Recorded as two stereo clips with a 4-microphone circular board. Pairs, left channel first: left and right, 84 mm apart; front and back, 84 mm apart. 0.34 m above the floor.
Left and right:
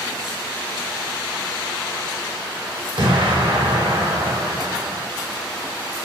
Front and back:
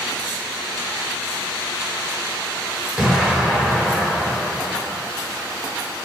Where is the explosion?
95° right, 1.0 m.